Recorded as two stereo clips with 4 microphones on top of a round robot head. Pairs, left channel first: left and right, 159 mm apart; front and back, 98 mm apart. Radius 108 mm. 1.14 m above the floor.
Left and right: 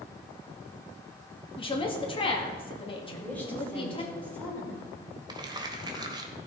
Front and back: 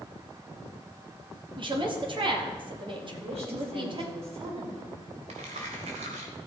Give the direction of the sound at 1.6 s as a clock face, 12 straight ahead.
7 o'clock.